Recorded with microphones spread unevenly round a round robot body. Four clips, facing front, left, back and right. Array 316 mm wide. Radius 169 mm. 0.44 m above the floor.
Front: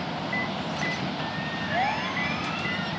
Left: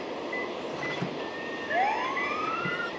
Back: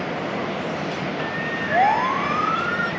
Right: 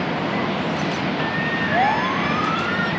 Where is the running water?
105° right.